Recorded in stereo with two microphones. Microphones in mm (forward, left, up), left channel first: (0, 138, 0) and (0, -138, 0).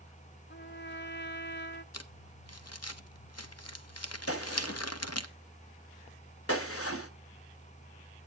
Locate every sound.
0.5 s a trumpet: 40° left (ahead or behind), 0.9 m
1.9 s crumpling: 65° left (ahead or behind), 0.8 m
4.3 s a gunshot: 55° left (ahead or behind), 1.0 m